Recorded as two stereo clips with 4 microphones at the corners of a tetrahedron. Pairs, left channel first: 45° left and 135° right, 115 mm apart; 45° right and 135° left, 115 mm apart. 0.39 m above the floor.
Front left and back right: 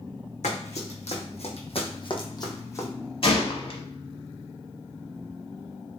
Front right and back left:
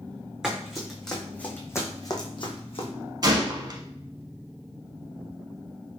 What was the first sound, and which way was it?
Running footsteps, 50° left.